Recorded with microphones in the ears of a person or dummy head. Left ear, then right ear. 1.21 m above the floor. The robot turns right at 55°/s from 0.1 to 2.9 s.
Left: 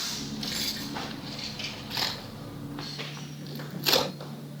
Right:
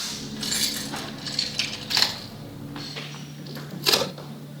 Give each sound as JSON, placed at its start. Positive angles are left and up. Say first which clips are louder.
{"t": 0.4, "sound": "keys jangling", "louder": "right 7 dB", "side_deg": -40, "distance_m": 6.5}
{"t": 1.9, "sound": "a crack", "louder": "right 8 dB", "side_deg": -50, "distance_m": 8.5}